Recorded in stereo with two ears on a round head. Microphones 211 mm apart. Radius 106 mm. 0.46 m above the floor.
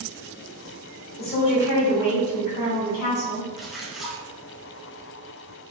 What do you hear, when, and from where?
1.2 s a woman speaking: 45° left (ahead or behind), 1.4 m
3.6 s a splash: centre (ahead or behind), 0.5 m